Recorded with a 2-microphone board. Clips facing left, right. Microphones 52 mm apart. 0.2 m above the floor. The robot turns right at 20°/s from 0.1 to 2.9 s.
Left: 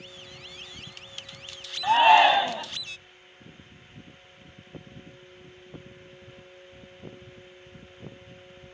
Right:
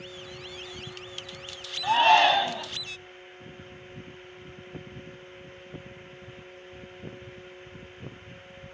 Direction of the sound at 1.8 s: 10° left (ahead or behind).